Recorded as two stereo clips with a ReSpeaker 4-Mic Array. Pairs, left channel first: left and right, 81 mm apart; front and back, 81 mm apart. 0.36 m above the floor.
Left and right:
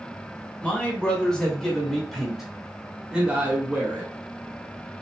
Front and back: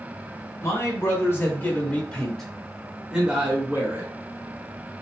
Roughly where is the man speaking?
Ahead.